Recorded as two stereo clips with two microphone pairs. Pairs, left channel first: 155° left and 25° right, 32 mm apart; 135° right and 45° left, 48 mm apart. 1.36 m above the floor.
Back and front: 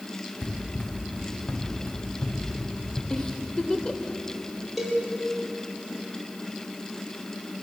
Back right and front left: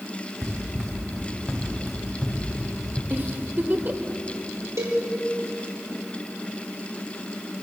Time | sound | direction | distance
0.4 | running footsteps | 115° left | 5 m
3.1 | a giggle | 95° left | 2.5 m
4.8 | a cowbell | 70° left | 6.5 m